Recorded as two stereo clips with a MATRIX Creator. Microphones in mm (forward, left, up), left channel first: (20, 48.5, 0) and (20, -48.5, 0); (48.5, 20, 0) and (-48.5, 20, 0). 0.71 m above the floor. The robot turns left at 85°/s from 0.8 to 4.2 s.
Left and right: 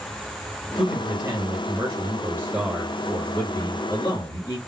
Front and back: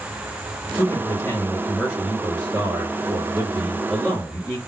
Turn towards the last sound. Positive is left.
turn(degrees=80)